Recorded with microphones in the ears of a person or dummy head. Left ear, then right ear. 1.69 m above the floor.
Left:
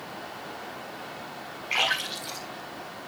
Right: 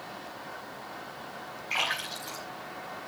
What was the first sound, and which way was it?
A splash, 5° right (ahead or behind).